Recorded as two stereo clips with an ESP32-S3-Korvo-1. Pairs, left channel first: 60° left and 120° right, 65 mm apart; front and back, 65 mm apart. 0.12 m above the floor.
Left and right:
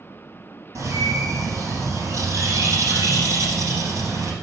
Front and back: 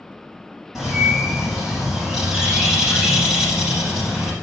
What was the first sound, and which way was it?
A bird, 100° right.